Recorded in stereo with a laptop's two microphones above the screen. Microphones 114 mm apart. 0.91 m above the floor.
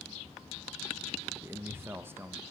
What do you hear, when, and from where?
1.4 s a man speaking: 20° right (ahead or behind), 0.7 m